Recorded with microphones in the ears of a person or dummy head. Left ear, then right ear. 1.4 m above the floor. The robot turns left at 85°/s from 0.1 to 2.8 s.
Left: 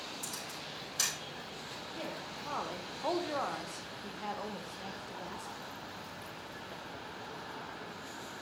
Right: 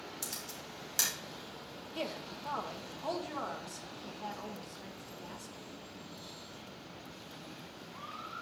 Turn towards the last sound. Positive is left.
turn(degrees=160)